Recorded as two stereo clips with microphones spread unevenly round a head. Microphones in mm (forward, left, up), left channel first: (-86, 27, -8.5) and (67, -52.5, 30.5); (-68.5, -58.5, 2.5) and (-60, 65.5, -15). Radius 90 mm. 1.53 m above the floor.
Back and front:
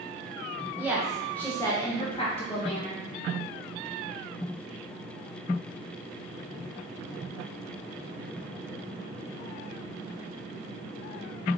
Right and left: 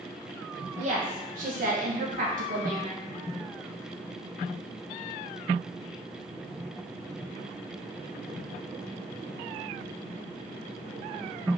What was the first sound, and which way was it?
A woman speaking, 40° left.